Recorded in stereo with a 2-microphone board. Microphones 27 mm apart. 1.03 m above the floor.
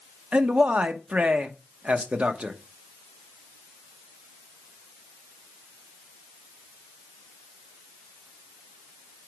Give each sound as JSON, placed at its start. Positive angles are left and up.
{"t": 0.3, "sound": "a man speaking", "side_deg": -60, "distance_m": 0.9}